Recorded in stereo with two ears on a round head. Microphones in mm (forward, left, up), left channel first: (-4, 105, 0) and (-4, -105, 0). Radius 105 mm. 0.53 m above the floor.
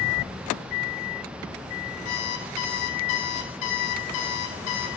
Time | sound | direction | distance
2.0 | an alarm clock | 75° left (ahead or behind) | 2.5 m